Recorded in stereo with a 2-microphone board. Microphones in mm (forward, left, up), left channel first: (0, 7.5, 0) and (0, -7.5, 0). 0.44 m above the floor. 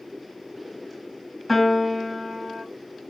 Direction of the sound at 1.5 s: 5° right (ahead or behind).